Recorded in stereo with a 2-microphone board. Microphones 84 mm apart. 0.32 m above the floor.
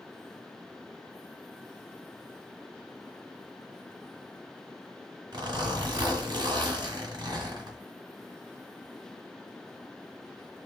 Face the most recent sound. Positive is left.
turn(degrees=-60)  # may be behind; listen again after turning